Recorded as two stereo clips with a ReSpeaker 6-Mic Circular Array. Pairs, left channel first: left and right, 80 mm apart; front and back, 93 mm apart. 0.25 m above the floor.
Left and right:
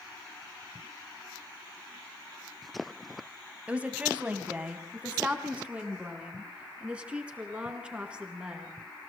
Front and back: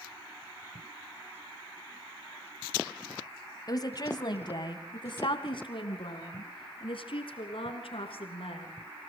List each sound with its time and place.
3.7 s a woman speaking: 20° right, 1.6 m; by 8.7 s 10° right, 4 m